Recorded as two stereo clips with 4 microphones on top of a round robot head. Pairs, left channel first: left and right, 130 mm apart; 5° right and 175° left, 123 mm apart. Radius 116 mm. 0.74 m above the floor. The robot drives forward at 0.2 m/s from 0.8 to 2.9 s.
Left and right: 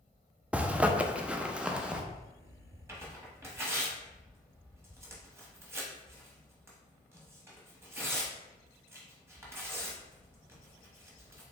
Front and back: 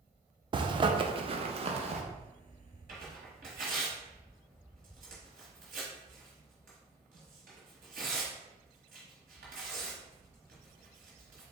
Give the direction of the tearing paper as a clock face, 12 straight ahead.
5 o'clock.